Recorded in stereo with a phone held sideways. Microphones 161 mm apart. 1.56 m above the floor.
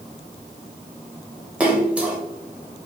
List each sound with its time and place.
1.6 s a splash: 10° right (ahead or behind), 0.9 m